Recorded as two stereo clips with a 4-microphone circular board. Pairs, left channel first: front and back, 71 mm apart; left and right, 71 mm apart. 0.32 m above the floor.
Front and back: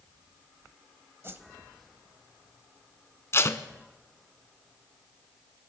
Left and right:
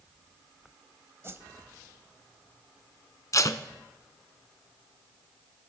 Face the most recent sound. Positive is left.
turn(degrees=50)